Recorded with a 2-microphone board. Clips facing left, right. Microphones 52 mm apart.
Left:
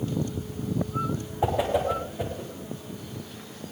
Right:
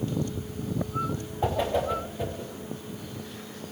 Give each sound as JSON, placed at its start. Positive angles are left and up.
{"t": 1.4, "sound": "a whoosh", "side_deg": 15, "distance_m": 6.5}